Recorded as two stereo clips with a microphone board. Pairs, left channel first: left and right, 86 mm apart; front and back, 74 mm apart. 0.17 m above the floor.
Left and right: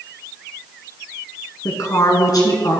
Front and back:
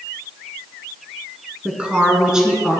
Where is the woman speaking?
120° left, 1.4 m; by 2.8 s 95° left, 1.8 m.